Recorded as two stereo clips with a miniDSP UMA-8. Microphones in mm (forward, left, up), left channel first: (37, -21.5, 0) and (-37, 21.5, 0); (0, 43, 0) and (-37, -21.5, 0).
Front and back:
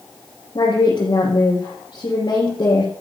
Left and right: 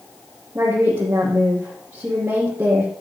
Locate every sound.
0.6 s a woman speaking: 60° right, 4.5 m